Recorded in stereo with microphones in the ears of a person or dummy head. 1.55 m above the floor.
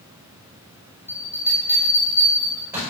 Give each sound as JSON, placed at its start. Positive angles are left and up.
{"t": 1.1, "sound": "a bell", "side_deg": -15, "distance_m": 5.5}